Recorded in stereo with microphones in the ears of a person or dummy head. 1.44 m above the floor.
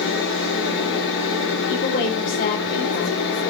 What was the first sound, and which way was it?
A machine running, 75° left (ahead or behind).